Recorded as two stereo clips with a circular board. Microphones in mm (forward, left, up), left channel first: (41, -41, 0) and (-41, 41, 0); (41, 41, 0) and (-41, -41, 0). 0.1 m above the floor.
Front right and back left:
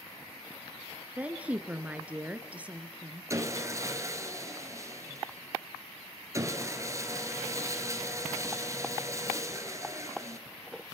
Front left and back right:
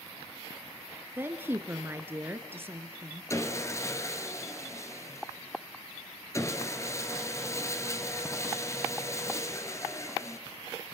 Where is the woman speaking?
170° right, 1.1 m.